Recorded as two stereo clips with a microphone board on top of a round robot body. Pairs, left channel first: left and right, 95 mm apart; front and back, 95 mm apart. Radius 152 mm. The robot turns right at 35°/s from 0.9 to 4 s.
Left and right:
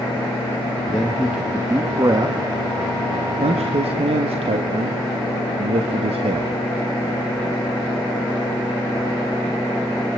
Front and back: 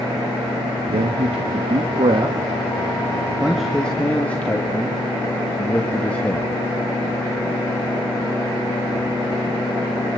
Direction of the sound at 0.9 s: 175° left.